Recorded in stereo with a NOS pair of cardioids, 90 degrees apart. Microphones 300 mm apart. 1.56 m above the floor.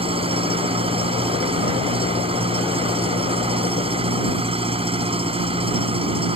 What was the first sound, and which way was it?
An engine running, 20° right.